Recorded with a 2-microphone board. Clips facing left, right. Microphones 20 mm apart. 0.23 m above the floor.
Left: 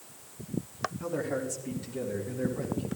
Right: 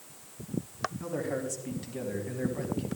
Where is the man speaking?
Centre (ahead or behind), 2 m; by 2.9 s 35° right (ahead or behind), 2 m.